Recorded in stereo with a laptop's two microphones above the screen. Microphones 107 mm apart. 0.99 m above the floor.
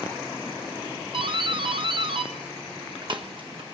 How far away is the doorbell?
About 1.4 m.